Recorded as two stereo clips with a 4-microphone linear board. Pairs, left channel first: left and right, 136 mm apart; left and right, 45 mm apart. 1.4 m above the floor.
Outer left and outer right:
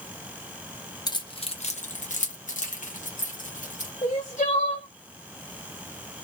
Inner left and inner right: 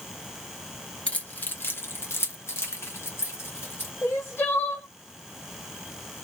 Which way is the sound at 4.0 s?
60° left (ahead or behind).